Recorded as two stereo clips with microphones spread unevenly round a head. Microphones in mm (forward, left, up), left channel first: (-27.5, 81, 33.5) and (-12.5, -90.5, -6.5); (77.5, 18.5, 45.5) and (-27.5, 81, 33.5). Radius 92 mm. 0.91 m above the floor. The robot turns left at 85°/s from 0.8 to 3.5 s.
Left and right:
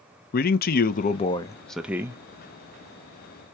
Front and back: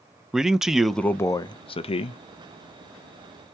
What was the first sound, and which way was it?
A man speaking, 70° left.